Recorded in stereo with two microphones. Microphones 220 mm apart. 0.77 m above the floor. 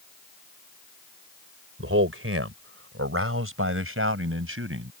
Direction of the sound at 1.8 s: 75° right (ahead or behind).